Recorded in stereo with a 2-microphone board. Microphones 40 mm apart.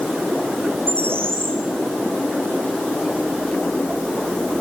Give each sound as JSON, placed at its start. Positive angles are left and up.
{"t": 0.9, "sound": "a bird", "side_deg": -75, "distance_m": 9.0}